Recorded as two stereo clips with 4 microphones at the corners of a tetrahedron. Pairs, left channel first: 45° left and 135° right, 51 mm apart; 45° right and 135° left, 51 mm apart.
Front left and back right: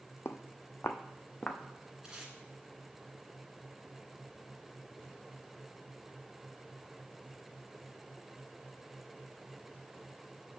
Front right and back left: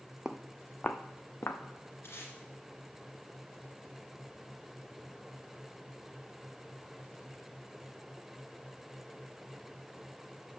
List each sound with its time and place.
0.2 s footsteps: 60° left, 0.6 m; by 1.6 s 20° right, 1.0 m
2.0 s tape being pulled: 55° right, 1.9 m